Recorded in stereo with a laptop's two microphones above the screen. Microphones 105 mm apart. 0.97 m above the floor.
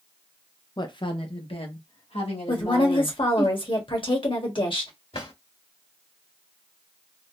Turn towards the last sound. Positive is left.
turn(degrees=75)  # may be behind; listen again after turning